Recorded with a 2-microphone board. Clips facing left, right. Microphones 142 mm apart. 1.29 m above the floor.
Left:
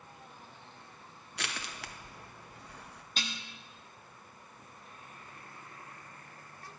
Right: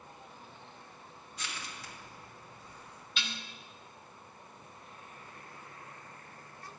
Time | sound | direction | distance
1.4 | crushing | 75° left (ahead or behind) | 0.8 m
3.2 | dishes clattering | 40° left (ahead or behind) | 0.8 m